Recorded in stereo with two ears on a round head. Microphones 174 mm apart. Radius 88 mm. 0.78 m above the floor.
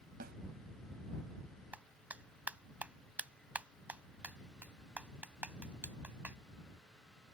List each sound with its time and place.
0.2 s a snare drum: 45° right (ahead or behind)
1.7 s a clap: 5° right (ahead or behind)